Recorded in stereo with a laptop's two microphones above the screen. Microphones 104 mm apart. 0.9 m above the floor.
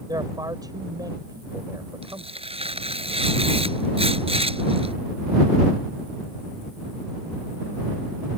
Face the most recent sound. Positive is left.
turn(degrees=-65)  # may be behind; listen again after turning